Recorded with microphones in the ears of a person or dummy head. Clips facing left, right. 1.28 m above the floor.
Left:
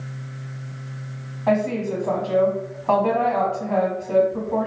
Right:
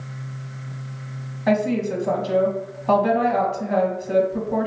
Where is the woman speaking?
20° right (ahead or behind), 1.1 m.